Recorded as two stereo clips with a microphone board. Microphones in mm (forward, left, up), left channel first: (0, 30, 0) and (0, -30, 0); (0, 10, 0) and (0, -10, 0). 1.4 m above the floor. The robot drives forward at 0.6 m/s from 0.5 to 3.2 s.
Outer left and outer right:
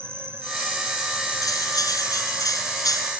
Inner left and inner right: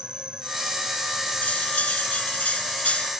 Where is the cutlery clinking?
85° left; by 3.1 s 80° left.